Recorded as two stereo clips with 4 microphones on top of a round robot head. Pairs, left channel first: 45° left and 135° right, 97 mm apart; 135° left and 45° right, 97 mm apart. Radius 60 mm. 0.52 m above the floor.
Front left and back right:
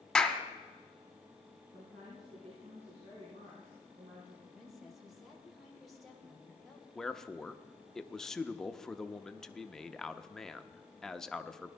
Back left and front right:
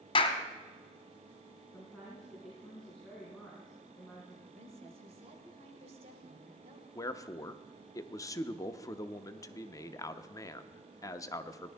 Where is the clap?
130° left, 1.4 m.